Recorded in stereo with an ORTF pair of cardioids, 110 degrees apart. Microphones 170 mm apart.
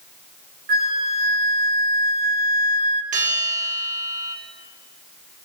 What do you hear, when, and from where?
0.7 s a flute: 60° right, 1.8 m
3.1 s a bell: 50° right, 6 m